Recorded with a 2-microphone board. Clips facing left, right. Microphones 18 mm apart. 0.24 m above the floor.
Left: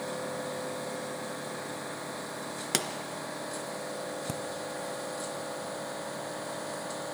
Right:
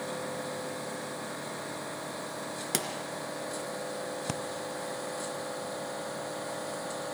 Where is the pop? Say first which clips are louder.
Left 3 dB; 20° left (ahead or behind), 1.3 m.